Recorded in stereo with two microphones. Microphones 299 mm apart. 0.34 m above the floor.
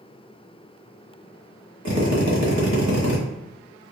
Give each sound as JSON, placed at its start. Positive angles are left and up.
{"t": 1.9, "sound": "a drill", "side_deg": -65, "distance_m": 0.9}